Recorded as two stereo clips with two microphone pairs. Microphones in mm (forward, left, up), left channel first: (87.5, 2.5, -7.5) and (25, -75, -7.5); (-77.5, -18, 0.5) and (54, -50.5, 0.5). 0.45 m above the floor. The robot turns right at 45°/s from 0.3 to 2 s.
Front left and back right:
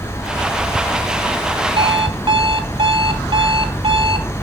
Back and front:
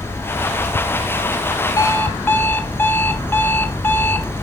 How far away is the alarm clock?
About 0.9 m.